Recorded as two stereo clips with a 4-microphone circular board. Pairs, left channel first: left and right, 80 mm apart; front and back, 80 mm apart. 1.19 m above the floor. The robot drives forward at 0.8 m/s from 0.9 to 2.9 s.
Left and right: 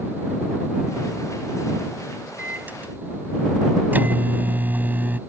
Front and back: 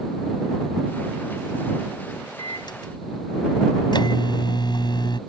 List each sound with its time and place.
2.4 s a microwave: 20° right; by 5.2 s 25° right